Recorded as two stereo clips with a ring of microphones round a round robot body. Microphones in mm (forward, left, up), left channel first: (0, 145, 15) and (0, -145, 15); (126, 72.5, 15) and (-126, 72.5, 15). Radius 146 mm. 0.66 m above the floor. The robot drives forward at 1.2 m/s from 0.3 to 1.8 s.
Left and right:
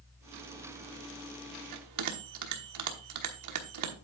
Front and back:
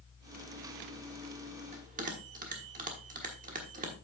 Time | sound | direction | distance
1.7 | a bell | 110° right | 1.1 m